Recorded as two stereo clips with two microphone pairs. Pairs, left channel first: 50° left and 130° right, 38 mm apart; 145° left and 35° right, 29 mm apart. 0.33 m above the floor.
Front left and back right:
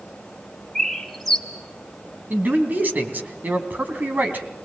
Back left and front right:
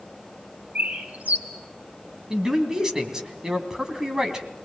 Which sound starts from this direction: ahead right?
A bird, at 0.8 s.